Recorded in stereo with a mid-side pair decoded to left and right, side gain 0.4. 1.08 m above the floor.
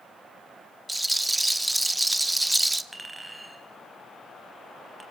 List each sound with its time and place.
0.9 s a rattle: 10° right, 1.4 m
2.9 s a clink: 10° right, 4.5 m